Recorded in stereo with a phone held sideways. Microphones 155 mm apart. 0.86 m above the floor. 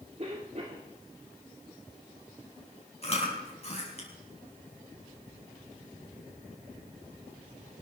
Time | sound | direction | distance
0.2 | a cough | 45° right (ahead or behind) | 2 m
3.0 | chewing | 40° left (ahead or behind) | 6 m